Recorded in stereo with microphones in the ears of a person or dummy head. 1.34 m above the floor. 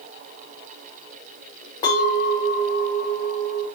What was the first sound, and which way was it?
A clink, 30° left (ahead or behind).